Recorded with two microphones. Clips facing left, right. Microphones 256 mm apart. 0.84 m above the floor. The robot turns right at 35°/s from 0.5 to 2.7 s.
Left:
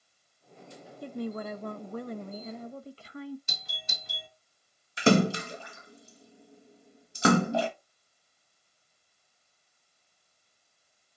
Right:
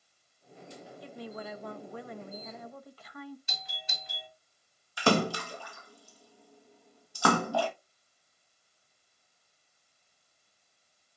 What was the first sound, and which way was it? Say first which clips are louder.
A woman speaking: left 8 dB; 80° left.